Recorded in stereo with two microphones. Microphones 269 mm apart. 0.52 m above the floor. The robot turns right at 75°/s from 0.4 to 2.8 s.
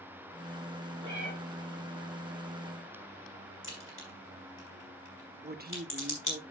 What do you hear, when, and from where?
1.0 s a cat meowing: 85° right, 6.5 m; by 1.3 s 65° right (ahead or behind), 6.5 m
3.6 s a crack: 45° left (ahead or behind), 4 m
5.4 s a woman speaking: 35° right (ahead or behind), 0.9 m